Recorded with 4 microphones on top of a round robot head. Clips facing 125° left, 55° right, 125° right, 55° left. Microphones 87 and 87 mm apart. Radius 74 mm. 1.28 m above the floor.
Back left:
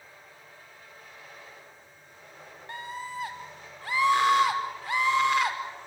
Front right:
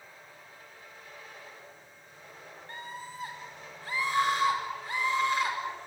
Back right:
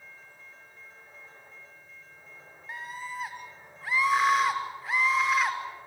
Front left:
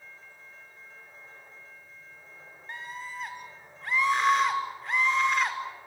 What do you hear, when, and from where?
2.7 s a scream: 145° left, 5.5 m